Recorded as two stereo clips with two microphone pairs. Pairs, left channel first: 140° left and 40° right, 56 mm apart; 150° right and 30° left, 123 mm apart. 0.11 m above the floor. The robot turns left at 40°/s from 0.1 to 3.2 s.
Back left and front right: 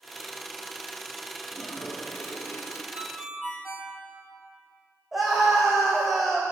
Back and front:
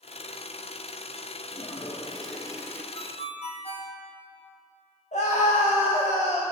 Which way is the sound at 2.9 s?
110° right.